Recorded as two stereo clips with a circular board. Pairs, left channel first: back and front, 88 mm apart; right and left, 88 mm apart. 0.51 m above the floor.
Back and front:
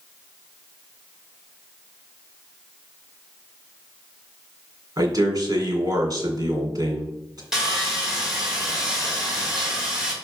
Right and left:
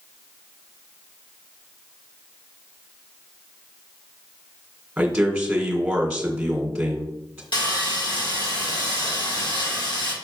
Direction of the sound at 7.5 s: 85° right.